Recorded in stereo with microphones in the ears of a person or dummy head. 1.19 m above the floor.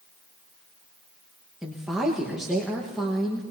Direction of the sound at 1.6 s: Centre (ahead or behind).